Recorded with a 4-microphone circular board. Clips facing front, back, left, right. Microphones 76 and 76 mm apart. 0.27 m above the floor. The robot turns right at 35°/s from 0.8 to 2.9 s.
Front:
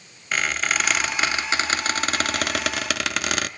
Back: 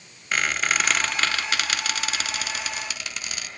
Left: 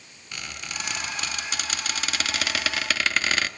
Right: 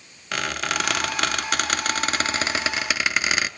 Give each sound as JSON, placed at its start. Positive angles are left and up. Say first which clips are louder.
{"t": 0.3, "sound": "a squeak", "louder": "even, right 11 dB", "azimuth_deg": -90, "distance_m": 0.6}